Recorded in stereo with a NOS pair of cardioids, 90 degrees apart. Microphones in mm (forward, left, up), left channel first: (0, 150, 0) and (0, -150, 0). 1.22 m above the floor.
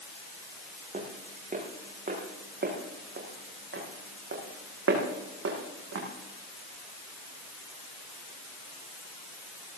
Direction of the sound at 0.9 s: 25° right.